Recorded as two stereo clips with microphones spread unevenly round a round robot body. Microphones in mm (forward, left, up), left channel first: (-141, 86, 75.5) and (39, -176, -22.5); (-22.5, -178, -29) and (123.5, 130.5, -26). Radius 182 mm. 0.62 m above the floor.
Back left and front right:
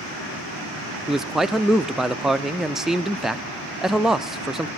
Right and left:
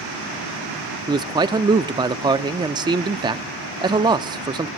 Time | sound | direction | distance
1.1 | a man speaking | 5° right | 0.6 m